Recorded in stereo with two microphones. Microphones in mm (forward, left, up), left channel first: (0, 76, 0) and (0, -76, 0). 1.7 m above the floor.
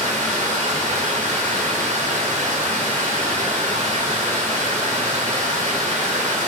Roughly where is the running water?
Right.